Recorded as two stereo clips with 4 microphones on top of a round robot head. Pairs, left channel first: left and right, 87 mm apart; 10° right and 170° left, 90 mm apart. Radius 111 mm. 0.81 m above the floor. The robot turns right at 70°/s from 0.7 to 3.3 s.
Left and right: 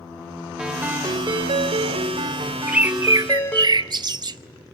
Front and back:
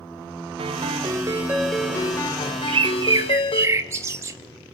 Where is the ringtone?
170° right, 2 m; by 3.7 s 15° left, 2 m.